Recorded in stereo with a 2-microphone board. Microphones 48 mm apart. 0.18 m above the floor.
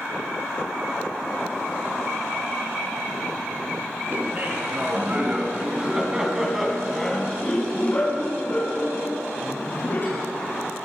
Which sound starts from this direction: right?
Laughter, at 4.1 s.